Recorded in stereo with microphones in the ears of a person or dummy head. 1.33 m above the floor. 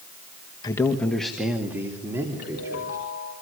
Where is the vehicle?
I don't hear a vehicle.